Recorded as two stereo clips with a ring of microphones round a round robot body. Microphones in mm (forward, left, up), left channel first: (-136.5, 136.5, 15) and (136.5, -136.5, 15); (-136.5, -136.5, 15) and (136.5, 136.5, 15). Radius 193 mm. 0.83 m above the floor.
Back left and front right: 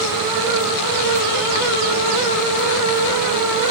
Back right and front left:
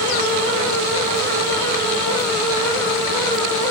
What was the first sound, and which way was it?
Only background noise.